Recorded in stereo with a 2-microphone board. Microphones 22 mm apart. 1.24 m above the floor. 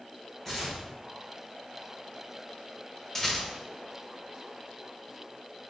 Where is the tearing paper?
15° left (ahead or behind), 1.9 m.